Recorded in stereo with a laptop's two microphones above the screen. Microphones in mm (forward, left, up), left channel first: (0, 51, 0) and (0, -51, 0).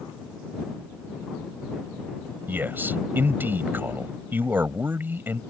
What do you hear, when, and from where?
2.5 s a man speaking: 20° right (ahead or behind)